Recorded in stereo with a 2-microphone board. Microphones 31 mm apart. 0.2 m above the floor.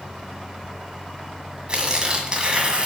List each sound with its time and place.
1.7 s tearing paper: 30° right (ahead or behind), 1.8 m